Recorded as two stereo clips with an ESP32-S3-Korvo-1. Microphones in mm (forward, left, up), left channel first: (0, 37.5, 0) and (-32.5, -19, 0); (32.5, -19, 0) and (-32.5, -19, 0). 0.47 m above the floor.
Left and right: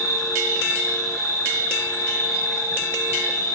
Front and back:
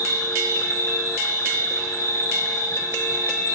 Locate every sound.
0.0 s an insect: 30° left, 0.9 m